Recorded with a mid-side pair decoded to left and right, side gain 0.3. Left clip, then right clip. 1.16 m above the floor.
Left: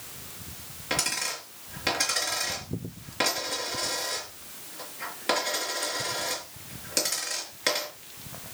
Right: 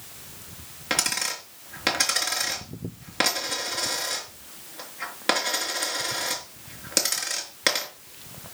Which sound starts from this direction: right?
A dropped coin, at 0.9 s.